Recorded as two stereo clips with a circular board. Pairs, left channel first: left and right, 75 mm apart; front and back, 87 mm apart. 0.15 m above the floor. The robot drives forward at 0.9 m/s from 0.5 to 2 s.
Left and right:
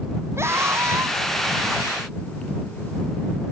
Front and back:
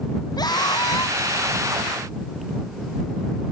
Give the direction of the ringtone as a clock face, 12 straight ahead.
No ringtone in this recording.